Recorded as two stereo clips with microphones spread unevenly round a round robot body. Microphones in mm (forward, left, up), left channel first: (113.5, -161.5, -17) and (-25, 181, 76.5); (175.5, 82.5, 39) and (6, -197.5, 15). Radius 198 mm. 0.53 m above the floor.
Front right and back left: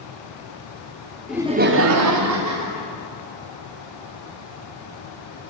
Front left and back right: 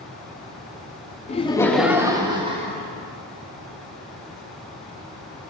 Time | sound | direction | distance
1.3 | laughter | 5° right | 0.7 m